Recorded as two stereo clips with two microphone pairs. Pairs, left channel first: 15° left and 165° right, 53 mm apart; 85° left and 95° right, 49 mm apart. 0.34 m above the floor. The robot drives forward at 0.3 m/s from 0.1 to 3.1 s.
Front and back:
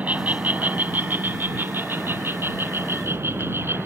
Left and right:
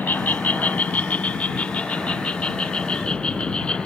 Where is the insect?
135° left; by 3.9 s 155° left.